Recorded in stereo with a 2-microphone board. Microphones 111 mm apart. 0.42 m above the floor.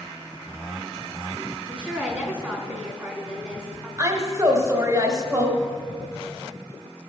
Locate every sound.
1.7 s a woman speaking: 10° right (ahead or behind), 3.5 m
4.0 s a woman speaking: 35° right (ahead or behind), 1.3 m